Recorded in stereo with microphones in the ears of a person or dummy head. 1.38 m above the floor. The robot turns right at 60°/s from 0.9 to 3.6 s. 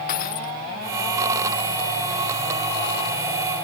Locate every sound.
0.1 s breaking glass: 50° left (ahead or behind)